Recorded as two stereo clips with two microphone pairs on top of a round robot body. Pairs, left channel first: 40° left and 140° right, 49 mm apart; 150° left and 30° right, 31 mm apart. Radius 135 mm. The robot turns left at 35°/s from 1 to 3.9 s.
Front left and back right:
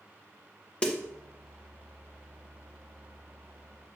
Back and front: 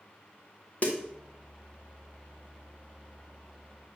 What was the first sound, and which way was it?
A snare drum, 105° left.